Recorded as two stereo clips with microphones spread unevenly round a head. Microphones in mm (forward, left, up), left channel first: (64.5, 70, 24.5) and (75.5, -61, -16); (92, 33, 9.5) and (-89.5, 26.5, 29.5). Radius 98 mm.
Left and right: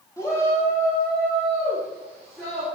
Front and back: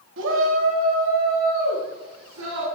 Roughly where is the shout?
Behind.